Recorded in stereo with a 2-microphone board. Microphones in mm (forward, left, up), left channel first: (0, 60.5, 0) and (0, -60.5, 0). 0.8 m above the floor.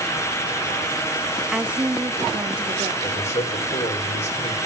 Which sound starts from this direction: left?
A man speaking, at 3.0 s.